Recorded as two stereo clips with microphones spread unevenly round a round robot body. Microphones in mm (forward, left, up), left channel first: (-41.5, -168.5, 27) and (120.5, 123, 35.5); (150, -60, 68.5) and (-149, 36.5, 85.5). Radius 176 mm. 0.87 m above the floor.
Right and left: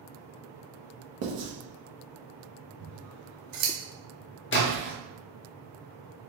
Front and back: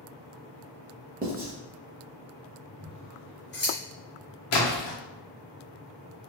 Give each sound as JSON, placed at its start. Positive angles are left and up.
{"t": 1.2, "sound": "writing", "azimuth_deg": 100, "distance_m": 0.8}
{"t": 2.8, "sound": "scissors", "azimuth_deg": 35, "distance_m": 0.9}
{"t": 4.5, "sound": "a splash", "azimuth_deg": -60, "distance_m": 0.8}